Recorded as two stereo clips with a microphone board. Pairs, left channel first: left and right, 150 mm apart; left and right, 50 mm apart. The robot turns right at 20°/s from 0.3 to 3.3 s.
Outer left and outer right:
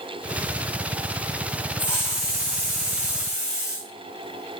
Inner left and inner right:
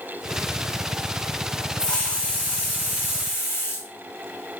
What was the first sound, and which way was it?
A hiss, 15° left.